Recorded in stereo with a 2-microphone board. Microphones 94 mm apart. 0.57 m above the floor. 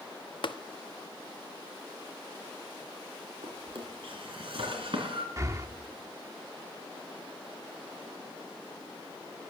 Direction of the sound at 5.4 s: 30° right (ahead or behind).